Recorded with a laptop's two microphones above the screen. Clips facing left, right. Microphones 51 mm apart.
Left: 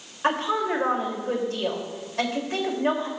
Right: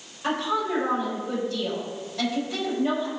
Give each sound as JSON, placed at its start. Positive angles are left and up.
{"t": 0.2, "sound": "a woman speaking", "side_deg": 45, "distance_m": 3.0}